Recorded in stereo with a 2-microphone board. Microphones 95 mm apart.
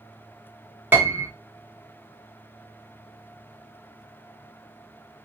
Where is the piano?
20° right (ahead or behind), 0.9 m.